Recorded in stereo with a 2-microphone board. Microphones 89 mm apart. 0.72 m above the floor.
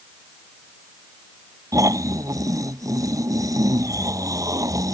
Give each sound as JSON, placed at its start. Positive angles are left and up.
{"t": 1.7, "sound": "snoring", "side_deg": -40}